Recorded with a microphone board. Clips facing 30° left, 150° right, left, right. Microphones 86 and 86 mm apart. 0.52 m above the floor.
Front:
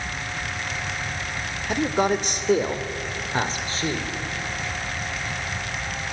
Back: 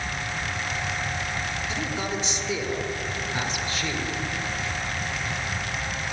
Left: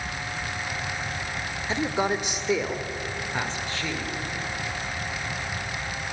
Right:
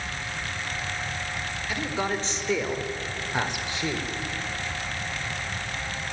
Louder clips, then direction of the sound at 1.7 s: Front 11 dB, left 4 dB; 30° left.